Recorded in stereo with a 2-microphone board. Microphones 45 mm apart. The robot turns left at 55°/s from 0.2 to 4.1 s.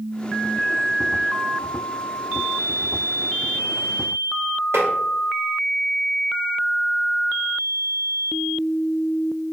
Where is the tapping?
65° right (ahead or behind), 0.9 m.